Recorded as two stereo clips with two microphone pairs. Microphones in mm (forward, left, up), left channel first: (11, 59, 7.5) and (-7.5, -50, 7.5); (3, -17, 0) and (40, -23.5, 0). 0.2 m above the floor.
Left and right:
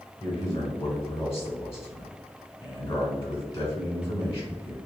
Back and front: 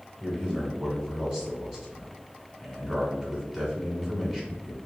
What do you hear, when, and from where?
0.2 s a man speaking: 40° left, 1.4 m